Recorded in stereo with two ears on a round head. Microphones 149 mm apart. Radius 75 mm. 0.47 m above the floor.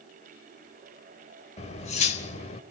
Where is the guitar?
No guitar in this recording.